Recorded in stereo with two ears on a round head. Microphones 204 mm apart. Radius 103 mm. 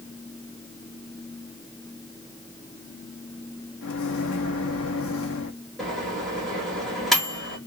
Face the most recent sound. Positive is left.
turn(degrees=0)  # may be behind; listen again after turning